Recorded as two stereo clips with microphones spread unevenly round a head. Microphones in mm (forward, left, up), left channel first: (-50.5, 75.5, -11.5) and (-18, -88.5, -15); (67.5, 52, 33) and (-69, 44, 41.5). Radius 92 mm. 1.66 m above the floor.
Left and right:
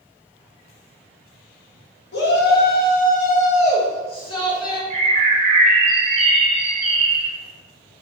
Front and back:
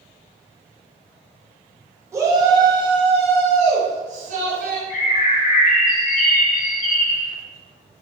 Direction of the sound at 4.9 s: 20° right.